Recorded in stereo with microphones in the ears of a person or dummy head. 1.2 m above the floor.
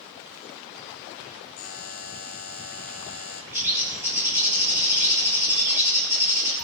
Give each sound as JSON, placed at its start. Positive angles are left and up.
{"t": 1.6, "sound": "a buzzer", "side_deg": 40, "distance_m": 1.2}
{"t": 3.5, "sound": "a bird", "side_deg": -15, "distance_m": 4.0}